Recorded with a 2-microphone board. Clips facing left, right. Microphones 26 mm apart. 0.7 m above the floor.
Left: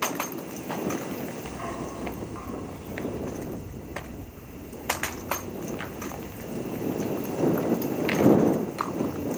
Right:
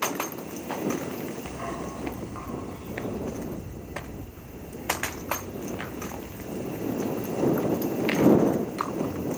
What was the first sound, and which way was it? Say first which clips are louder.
A dog barking: even; centre (ahead or behind).